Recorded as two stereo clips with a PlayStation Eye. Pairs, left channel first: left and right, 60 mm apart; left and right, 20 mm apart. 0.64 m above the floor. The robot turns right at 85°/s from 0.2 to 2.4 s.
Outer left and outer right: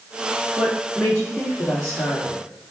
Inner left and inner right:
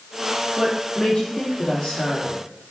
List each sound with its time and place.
0.6 s a woman speaking: 40° right, 1.2 m; by 2.4 s 115° left, 1.2 m